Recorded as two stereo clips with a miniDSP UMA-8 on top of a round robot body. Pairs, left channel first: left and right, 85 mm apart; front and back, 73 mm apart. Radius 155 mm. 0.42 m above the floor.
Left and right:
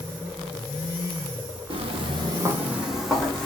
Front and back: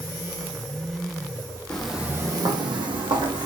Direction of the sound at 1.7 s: 80° right.